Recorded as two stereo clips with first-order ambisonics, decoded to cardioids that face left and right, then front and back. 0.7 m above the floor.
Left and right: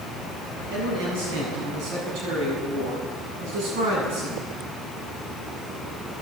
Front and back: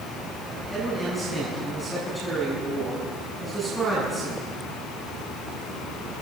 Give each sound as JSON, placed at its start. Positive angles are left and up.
{"t": 0.7, "sound": "a man speaking", "azimuth_deg": -95, "distance_m": 7.5}